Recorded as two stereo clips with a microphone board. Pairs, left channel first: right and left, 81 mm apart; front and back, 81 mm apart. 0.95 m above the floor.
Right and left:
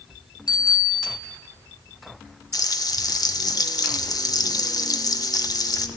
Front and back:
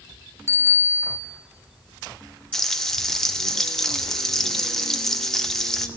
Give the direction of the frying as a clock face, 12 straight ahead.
3 o'clock.